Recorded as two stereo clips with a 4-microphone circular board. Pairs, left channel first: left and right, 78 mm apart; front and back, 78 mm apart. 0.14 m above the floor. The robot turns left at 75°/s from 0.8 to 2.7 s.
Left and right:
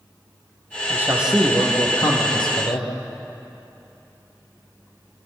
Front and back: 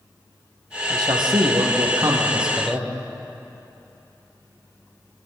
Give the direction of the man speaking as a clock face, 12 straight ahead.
5 o'clock.